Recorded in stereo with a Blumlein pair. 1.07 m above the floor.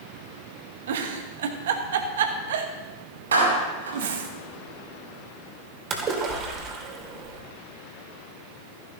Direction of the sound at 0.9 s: 60° right.